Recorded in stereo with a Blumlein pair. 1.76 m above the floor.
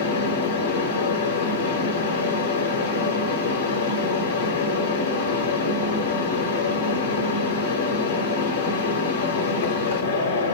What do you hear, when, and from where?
0.0 s a fan: 70° left, 0.8 m